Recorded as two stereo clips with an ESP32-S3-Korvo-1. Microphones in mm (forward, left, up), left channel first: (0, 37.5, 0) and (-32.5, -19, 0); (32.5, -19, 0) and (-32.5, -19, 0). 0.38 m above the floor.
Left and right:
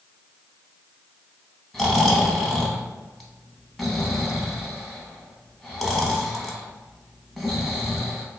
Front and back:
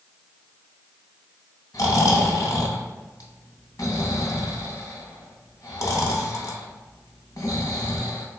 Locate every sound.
1.7 s snoring: 25° right, 0.7 m